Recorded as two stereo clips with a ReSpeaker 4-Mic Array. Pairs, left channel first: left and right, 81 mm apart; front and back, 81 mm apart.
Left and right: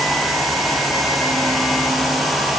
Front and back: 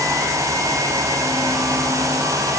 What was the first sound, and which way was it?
Only background noise.